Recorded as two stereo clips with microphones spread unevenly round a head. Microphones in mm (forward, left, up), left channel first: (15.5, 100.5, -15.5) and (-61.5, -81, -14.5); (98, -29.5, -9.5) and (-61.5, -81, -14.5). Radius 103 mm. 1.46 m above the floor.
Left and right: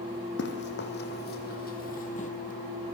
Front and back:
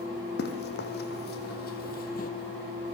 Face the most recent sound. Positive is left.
turn(degrees=20)